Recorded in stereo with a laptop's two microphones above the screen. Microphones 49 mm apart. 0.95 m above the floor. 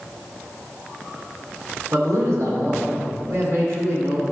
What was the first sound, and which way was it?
A man speaking, 70° right (ahead or behind).